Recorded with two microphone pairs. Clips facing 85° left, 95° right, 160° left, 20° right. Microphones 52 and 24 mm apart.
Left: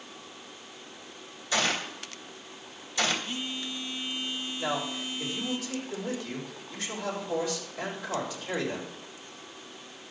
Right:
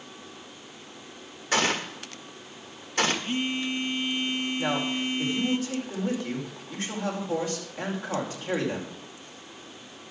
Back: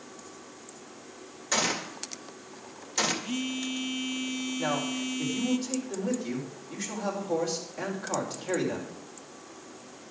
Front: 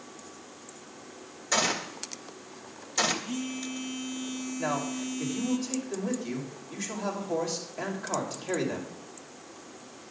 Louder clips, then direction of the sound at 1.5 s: Right 3 dB, front 1 dB; 120° right.